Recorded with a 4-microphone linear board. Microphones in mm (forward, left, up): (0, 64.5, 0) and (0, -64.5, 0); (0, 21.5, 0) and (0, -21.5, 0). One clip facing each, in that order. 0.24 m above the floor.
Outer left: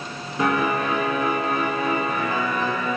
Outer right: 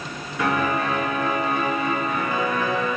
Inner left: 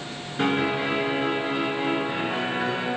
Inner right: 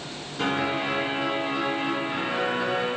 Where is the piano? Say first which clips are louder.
Outer left 1 dB, inner left 2 dB; 30° left (ahead or behind), 3 m.